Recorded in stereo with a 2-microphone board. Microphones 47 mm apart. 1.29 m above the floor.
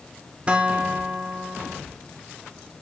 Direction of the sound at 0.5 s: 25° right (ahead or behind).